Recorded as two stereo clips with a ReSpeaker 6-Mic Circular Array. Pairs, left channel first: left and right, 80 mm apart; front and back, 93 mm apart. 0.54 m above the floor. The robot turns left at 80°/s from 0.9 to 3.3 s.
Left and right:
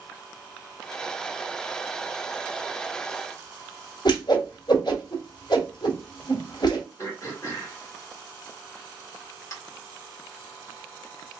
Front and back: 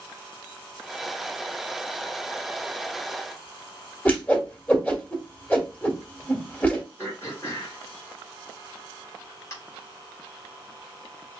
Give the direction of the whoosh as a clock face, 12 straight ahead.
10 o'clock.